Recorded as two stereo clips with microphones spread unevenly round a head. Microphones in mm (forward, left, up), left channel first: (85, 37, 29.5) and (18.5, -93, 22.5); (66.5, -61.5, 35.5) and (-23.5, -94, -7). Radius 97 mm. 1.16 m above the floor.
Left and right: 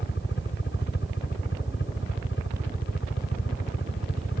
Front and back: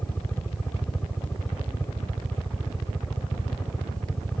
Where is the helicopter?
105° left.